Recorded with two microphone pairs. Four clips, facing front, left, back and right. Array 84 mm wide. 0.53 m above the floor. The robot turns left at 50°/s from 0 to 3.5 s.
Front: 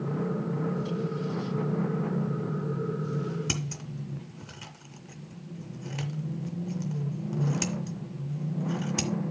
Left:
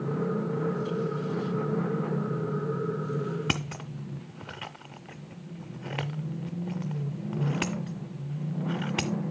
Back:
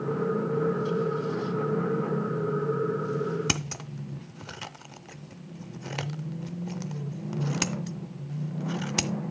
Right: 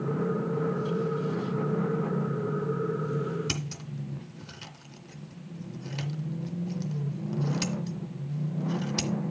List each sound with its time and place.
3.5 s scissors: 130° left, 0.5 m